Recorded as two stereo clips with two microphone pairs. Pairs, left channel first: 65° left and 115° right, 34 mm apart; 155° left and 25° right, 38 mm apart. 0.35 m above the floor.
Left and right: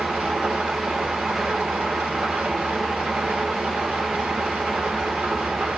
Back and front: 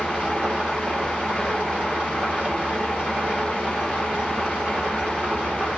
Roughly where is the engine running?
Right.